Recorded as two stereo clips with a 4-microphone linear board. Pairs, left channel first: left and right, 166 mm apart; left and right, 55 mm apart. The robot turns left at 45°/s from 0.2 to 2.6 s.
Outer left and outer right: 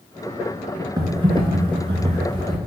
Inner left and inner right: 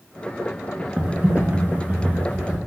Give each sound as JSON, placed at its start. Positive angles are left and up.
{"t": 1.0, "sound": "typing on a keyboard", "azimuth_deg": -50, "distance_m": 0.5}